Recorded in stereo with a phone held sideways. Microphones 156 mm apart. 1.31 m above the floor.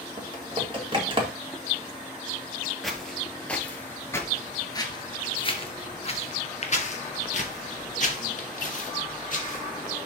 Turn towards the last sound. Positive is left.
turn(degrees=55)  # may be behind; listen again after turning